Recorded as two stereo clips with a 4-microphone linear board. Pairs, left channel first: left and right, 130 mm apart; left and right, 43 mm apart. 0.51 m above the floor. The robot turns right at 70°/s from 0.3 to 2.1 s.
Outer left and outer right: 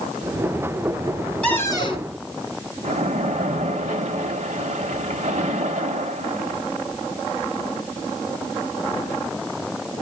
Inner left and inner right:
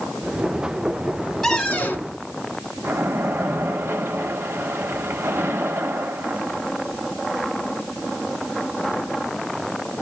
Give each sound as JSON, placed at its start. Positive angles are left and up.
{"t": 1.4, "sound": "a cupboard door", "azimuth_deg": 10, "distance_m": 1.9}
{"t": 2.8, "sound": "a splash", "side_deg": -60, "distance_m": 1.3}